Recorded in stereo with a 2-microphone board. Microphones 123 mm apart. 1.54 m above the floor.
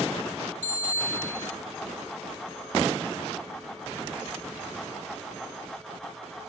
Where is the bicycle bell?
75° right (ahead or behind), 6.5 m.